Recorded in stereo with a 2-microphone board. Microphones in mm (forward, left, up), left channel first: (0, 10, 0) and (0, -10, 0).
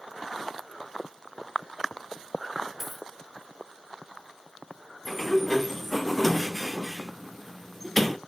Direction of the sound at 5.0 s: 5° left (ahead or behind).